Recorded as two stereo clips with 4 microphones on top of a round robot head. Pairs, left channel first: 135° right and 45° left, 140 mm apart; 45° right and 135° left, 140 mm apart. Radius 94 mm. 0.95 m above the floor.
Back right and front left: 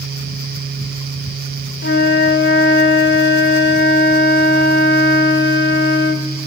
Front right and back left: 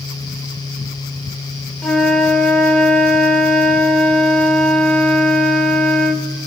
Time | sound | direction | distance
1.8 | a flute | 125° right | 1.1 m